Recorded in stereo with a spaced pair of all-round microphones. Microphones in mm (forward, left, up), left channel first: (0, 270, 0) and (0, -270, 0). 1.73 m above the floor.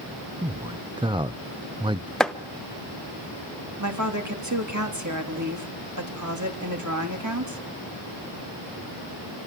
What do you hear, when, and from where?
0.4 s a man speaking: 10° right (ahead or behind), 0.5 m
2.2 s chopping: centre (ahead or behind), 0.8 m
3.8 s a woman speaking: 30° right (ahead or behind), 3 m